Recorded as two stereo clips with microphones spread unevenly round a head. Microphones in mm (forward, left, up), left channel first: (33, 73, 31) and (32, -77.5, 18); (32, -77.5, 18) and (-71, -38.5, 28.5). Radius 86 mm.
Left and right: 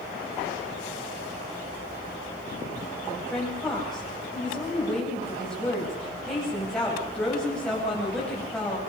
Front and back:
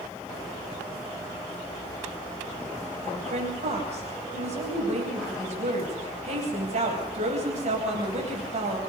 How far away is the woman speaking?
About 9 m.